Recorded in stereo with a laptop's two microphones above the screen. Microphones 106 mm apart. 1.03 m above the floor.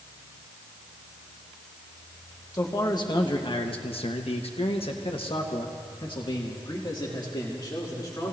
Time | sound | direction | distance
2.5 | a man speaking | 30° left (ahead or behind) | 1.4 m